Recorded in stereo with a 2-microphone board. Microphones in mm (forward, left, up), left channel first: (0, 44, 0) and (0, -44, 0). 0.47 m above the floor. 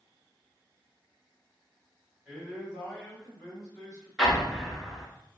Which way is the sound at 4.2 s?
Centre (ahead or behind).